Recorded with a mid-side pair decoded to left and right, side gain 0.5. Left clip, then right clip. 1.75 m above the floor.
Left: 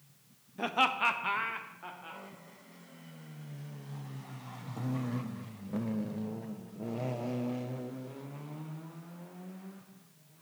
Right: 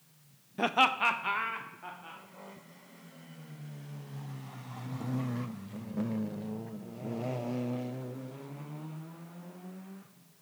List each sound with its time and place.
0.6 s laughter: 35° right, 0.5 m; by 2.2 s 15° left, 2.5 m